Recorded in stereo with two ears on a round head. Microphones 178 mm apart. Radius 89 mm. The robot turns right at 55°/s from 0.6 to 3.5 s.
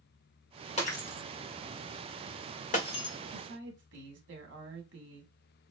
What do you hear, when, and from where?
0.8 s breaking glass: 30° left (ahead or behind), 1.6 m; by 3.1 s 15° left (ahead or behind), 1.6 m
3.3 s a woman speaking: 55° right (ahead or behind), 2 m; by 5.3 s 65° right (ahead or behind), 2 m